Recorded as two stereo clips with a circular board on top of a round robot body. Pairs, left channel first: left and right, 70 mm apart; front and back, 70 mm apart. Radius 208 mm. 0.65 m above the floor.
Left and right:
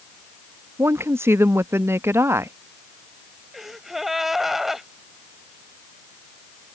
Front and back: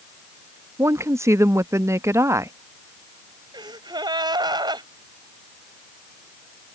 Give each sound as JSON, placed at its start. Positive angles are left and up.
{"t": 0.8, "sound": "a woman speaking", "azimuth_deg": -140}
{"t": 3.5, "sound": "a gasp", "azimuth_deg": -175}